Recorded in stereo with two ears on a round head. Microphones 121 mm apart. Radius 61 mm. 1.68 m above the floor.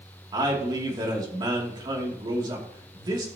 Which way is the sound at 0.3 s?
30° right (ahead or behind).